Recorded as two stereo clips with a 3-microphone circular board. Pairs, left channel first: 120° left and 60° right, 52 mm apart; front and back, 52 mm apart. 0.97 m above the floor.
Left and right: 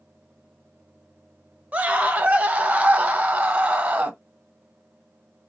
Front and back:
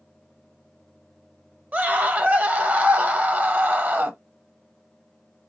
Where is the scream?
120° right, 0.9 m.